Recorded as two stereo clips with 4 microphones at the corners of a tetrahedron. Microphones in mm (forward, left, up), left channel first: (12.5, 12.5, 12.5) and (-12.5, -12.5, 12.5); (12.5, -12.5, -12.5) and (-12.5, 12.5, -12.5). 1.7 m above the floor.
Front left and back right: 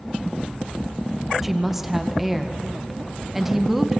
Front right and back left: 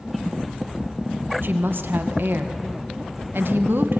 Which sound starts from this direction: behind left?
A woman speaking, at 1.4 s.